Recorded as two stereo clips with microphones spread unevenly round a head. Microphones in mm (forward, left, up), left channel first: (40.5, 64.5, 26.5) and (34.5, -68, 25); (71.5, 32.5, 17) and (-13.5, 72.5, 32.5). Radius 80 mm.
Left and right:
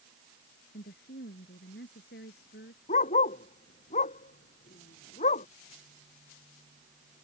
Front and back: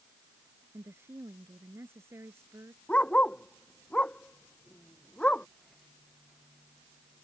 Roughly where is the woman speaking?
Left.